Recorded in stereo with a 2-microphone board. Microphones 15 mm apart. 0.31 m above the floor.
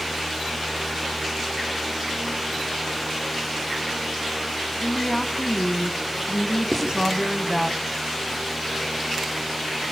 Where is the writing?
60° right (ahead or behind), 8 m.